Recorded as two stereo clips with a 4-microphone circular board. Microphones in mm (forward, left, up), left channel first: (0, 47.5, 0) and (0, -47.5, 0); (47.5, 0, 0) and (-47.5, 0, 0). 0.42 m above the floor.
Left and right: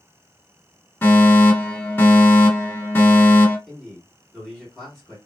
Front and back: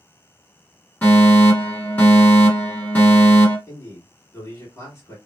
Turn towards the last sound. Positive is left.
turn(degrees=-5)